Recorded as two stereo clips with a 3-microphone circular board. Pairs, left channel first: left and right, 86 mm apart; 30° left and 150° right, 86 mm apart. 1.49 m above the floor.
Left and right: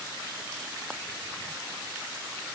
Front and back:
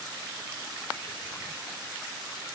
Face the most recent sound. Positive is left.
No sound to turn to.